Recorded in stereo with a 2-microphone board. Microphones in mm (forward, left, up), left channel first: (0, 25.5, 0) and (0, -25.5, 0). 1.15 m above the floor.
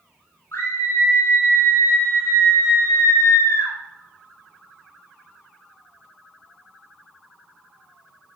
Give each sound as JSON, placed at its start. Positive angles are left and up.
{"t": 0.5, "sound": "a scream", "side_deg": 55, "distance_m": 5.0}